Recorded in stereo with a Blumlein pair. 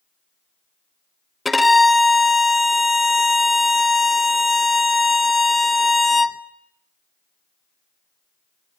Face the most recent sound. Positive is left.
turn(degrees=5)